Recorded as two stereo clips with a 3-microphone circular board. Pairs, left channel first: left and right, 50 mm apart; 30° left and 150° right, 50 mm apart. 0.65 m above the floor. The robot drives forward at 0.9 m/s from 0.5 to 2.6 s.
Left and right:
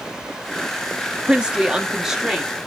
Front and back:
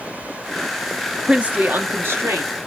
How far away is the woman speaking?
About 0.5 m.